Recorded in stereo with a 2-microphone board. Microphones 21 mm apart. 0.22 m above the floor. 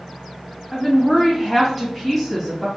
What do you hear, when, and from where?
0.7 s a woman speaking: 5° left (ahead or behind), 1.4 m